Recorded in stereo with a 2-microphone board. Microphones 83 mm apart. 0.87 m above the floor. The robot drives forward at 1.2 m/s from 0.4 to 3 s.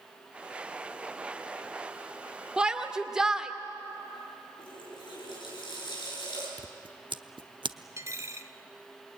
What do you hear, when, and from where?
2.6 s a shout: 10° right (ahead or behind), 1.5 m
4.6 s a running tap: 70° left (ahead or behind), 7.5 m
6.6 s scissors: 75° right (ahead or behind), 0.7 m
8.0 s a dropped coin: 40° right (ahead or behind), 1.1 m